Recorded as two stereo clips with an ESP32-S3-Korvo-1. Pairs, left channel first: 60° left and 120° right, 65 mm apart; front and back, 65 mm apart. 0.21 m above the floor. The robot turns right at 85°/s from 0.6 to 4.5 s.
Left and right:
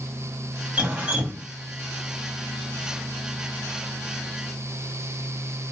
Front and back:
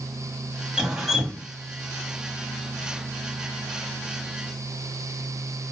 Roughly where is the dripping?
Behind right.